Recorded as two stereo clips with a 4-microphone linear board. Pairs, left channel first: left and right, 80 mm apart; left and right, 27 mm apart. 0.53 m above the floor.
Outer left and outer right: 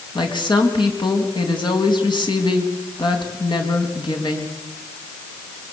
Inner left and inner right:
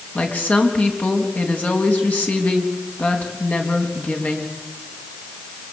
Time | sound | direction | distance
0.1 | a woman speaking | 65° left (ahead or behind) | 4 m